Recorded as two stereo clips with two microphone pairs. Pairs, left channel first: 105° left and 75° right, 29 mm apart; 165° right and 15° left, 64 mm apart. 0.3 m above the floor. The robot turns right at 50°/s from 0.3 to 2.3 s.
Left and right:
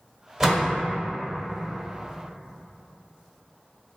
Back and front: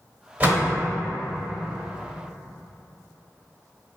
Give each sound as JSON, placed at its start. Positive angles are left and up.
{"t": 0.4, "sound": "a door slam", "azimuth_deg": -20, "distance_m": 0.7}